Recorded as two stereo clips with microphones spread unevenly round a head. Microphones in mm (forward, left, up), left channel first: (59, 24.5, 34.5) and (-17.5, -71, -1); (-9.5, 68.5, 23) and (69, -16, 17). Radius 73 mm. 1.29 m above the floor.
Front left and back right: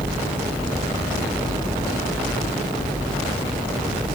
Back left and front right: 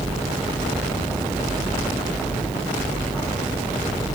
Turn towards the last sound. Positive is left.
No sound to turn to.